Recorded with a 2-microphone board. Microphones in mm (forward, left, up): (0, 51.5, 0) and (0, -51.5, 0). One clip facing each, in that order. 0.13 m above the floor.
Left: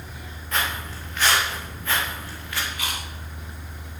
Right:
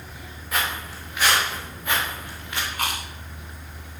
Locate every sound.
0.5 s footsteps: 5° right (ahead or behind), 7 m; by 2.6 s 20° right (ahead or behind), 5 m
2.7 s chewing: 45° right (ahead or behind), 3 m